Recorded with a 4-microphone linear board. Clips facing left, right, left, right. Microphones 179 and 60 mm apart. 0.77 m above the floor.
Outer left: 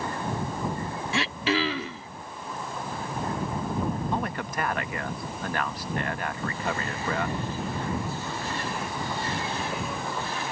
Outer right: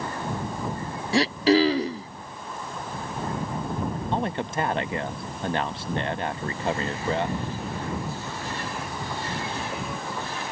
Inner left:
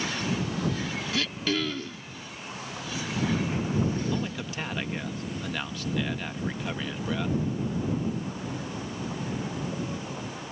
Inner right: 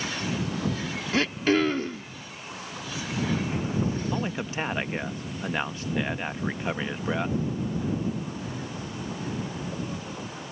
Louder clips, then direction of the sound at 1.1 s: Outer right 9 dB, inner right 7 dB; 35° right (ahead or behind).